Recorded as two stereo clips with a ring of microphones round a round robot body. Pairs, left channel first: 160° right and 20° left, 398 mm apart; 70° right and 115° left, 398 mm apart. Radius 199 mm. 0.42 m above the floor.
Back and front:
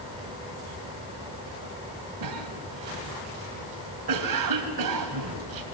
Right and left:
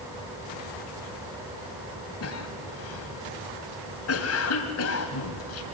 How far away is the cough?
About 3 m.